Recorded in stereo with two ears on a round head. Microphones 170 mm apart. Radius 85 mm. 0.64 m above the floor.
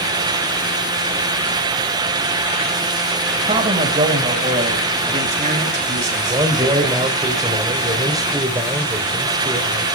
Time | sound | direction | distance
3.5 | a man speaking | 25° right (ahead or behind) | 4 m
6.1 | a man speaking | 20° right (ahead or behind) | 3 m